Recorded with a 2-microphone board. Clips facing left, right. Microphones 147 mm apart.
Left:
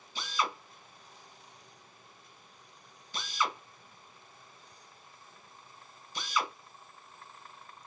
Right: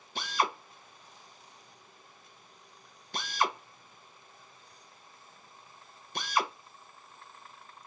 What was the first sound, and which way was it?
A drill, 55° right (ahead or behind).